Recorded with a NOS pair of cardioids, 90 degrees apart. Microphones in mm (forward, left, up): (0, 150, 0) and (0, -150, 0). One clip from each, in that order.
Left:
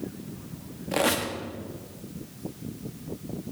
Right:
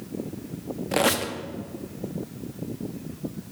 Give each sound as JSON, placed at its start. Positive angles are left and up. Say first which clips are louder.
{"t": 0.9, "sound": "a squeak", "louder": "right 2 dB", "azimuth_deg": -15, "distance_m": 0.7}